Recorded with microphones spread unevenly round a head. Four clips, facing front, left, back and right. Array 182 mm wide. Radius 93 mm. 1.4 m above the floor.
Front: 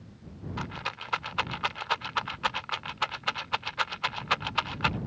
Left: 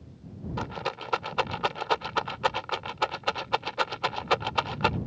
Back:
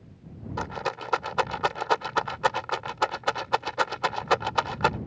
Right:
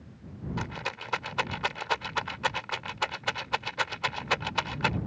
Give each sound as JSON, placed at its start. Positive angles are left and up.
{"t": 0.6, "sound": "a rattle", "azimuth_deg": 155}